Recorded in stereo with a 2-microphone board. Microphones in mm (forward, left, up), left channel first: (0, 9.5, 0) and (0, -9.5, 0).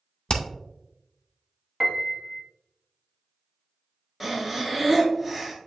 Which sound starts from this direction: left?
Hammering, at 0.3 s.